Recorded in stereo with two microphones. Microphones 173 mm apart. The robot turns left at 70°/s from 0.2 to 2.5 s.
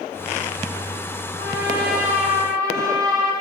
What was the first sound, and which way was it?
A trumpet, 80° right.